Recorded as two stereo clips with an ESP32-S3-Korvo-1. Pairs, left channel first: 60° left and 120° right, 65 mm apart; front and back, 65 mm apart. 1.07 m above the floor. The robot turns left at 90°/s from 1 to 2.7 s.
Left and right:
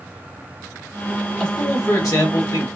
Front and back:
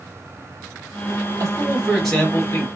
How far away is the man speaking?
About 1.2 m.